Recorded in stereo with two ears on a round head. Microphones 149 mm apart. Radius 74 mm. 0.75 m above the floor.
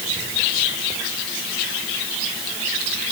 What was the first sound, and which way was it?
Only background noise.